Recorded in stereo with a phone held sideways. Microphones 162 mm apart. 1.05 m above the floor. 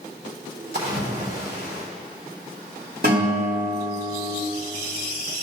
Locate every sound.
0.7 s a splash: 85° right, 2.5 m
3.0 s a guitar: 80° right, 3 m